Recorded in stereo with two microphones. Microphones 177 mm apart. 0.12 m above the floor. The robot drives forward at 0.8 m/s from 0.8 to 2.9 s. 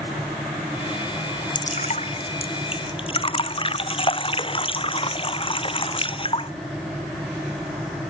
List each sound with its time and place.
1.6 s dripping: 45° left (ahead or behind); by 6.5 s 30° left (ahead or behind)